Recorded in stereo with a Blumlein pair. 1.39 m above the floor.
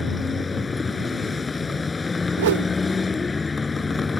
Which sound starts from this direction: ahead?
A vehicle, at 0.0 s.